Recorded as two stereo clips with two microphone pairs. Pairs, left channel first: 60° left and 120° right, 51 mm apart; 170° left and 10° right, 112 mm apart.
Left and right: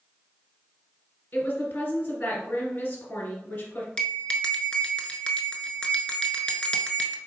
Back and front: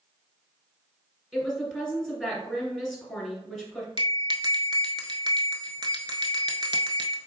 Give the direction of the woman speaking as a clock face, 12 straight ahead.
9 o'clock.